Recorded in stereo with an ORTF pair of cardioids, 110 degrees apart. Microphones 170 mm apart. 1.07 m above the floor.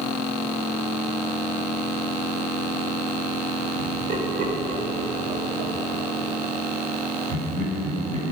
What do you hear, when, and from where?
3.8 s laughter: 55° right, 4.5 m; by 8.3 s 60° right, 7.5 m